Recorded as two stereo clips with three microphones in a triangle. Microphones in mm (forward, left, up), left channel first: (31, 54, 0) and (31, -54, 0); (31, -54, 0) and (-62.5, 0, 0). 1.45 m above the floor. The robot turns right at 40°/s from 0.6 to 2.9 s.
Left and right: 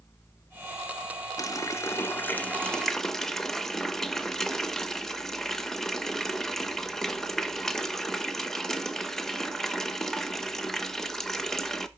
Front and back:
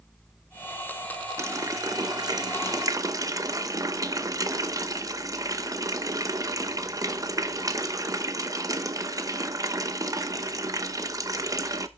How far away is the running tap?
About 0.7 m.